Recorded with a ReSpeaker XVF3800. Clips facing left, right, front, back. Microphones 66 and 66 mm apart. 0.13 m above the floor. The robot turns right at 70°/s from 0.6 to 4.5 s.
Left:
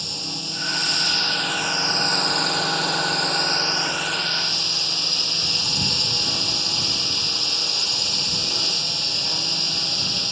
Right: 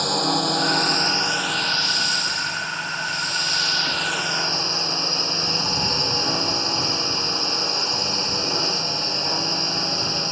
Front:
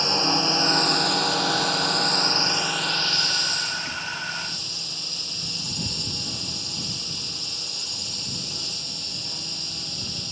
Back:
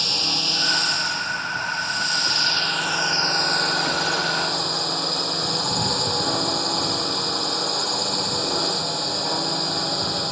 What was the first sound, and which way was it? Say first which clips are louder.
A drone: right 13 dB, front 5 dB; 65° right.